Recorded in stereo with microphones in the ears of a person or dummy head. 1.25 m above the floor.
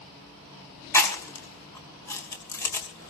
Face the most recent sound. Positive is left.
turn(degrees=15)  # may be behind; listen again after turning